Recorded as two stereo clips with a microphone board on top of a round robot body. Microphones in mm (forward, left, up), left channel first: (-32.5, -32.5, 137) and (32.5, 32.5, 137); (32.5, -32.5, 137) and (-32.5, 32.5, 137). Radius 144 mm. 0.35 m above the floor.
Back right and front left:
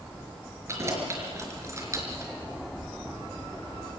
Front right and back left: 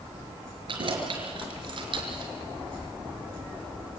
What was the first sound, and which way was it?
Keys jangling, 105° left.